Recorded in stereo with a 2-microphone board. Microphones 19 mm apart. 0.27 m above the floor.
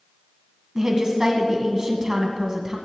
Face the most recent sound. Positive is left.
turn(degrees=-25)  # may be behind; listen again after turning